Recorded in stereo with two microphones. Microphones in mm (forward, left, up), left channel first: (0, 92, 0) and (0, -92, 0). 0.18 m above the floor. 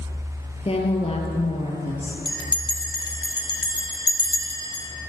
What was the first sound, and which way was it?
A woman speaking, 35° left (ahead or behind).